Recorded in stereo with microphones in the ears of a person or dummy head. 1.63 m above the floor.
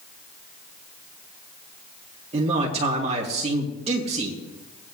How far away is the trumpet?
No trumpet in this recording.